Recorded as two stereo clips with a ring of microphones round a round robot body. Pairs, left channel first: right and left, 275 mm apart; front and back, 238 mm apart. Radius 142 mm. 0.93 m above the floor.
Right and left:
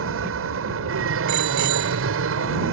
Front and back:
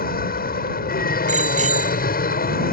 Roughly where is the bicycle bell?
Behind left.